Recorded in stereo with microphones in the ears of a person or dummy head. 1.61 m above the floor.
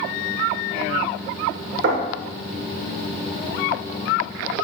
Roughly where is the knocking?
Right.